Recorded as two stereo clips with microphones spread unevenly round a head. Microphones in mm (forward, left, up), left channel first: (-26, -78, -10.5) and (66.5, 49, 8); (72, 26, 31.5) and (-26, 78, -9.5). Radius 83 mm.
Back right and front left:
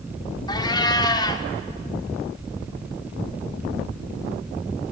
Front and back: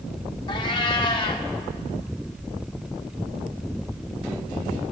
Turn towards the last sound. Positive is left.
turn(degrees=-60)